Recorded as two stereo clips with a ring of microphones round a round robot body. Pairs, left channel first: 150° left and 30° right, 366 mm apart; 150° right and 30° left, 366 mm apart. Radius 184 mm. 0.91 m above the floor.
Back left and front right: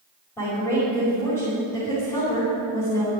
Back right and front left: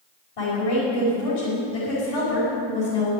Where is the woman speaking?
125° right, 5.5 m.